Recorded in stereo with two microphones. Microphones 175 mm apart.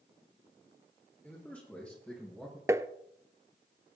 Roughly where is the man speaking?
Centre.